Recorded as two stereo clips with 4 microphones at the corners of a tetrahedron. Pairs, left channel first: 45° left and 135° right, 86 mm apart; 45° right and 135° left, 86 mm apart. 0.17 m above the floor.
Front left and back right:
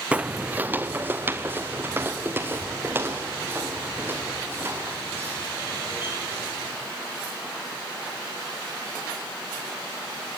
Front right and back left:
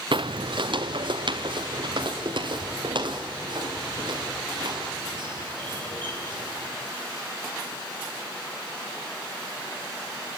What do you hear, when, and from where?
0.1 s footsteps: 150° left, 0.6 m; by 6.7 s 160° left, 8.5 m